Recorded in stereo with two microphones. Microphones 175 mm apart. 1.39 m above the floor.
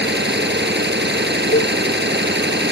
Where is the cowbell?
85° left.